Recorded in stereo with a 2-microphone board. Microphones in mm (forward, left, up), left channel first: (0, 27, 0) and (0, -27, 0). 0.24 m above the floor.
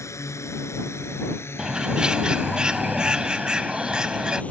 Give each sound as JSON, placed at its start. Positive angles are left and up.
{"t": 0.0, "sound": "a drone", "side_deg": 65}
{"t": 1.6, "sound": "a bird", "side_deg": -15}